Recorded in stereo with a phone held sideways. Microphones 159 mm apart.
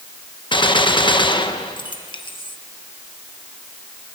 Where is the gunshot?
30° left (ahead or behind), 1.0 m.